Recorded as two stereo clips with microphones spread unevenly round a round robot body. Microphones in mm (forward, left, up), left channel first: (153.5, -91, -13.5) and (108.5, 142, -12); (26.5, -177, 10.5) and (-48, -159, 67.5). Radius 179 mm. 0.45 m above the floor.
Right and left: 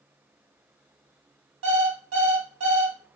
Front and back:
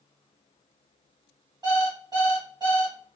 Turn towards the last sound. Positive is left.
turn(degrees=90)